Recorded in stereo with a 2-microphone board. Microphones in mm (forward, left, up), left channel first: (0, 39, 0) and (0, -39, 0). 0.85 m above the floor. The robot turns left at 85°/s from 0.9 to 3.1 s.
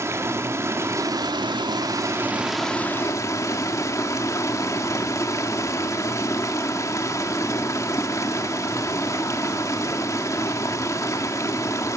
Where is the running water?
40° right, 1.9 m; by 12.0 s 135° left, 1.9 m.